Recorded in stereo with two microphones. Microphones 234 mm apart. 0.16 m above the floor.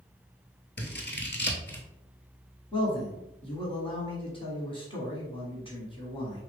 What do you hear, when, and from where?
0.8 s scissors: 50° left (ahead or behind), 0.8 m
2.7 s a man speaking: 20° left (ahead or behind), 1.1 m